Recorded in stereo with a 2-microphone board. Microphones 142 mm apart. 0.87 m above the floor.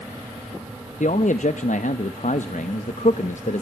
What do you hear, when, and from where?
1.0 s a man speaking: 55° left (ahead or behind), 0.6 m